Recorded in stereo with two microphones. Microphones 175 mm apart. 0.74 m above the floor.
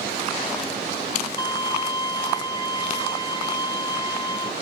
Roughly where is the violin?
Left.